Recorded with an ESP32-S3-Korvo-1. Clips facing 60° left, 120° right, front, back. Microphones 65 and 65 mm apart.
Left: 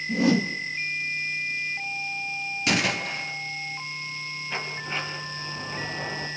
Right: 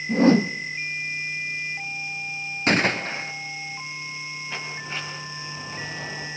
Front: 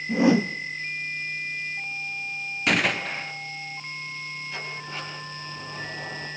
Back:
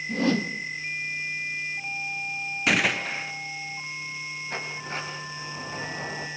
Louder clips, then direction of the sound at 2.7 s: Right 4 dB, even; 95° right.